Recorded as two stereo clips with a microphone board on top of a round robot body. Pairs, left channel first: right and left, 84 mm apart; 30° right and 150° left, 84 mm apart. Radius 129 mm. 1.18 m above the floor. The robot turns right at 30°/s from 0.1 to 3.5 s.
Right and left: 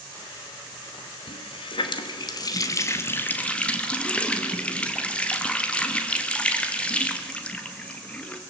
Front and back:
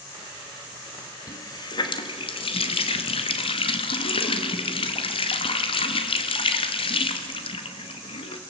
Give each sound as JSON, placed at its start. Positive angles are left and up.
{"t": 1.3, "sound": "a running tap", "azimuth_deg": -80, "distance_m": 1.3}